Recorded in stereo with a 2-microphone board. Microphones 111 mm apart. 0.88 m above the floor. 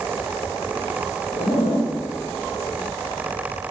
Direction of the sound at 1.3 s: 60° left (ahead or behind).